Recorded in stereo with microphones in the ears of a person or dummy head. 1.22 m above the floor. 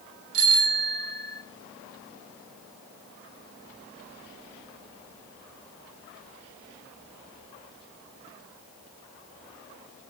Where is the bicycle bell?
85° right, 6.5 m.